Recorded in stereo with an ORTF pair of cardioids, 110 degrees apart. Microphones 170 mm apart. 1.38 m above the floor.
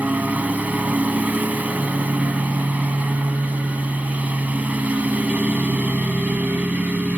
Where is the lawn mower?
10° right.